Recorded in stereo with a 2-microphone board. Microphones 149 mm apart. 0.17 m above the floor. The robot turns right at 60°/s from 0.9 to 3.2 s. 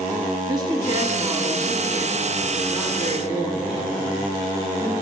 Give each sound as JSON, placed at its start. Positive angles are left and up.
{"t": 0.5, "sound": "a woman speaking", "azimuth_deg": -85, "distance_m": 1.7}